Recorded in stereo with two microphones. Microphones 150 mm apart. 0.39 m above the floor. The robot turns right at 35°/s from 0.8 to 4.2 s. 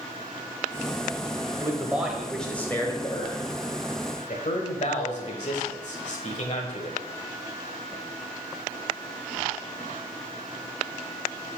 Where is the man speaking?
20° right, 1.4 m; by 7.0 s 70° left, 1.4 m.